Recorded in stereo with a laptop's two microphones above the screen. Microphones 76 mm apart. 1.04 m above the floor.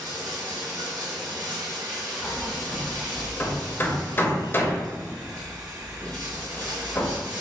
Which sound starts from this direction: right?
Running water, at 0.0 s.